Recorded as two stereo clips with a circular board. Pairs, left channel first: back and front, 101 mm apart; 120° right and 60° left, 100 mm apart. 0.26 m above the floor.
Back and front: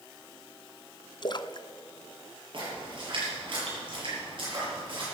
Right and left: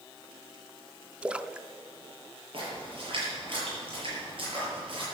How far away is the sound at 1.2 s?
About 0.5 m.